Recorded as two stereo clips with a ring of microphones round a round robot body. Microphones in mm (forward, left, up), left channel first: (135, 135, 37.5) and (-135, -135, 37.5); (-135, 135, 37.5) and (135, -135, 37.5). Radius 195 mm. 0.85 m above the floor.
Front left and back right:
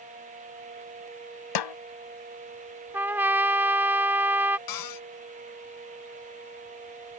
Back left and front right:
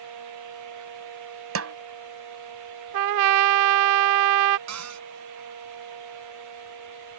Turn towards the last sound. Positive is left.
turn(degrees=5)